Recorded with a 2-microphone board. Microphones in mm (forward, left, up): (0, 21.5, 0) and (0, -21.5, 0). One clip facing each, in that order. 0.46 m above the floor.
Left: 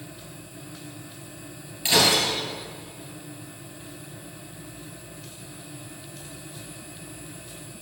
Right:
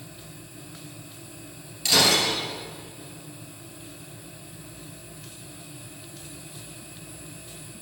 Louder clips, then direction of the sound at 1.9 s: Even; 25° left (ahead or behind).